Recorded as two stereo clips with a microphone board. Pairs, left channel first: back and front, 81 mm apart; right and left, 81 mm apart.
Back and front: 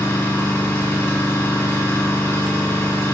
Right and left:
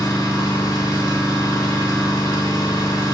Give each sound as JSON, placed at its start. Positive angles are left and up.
{"t": 0.0, "sound": "an engine running", "azimuth_deg": -120, "distance_m": 3.5}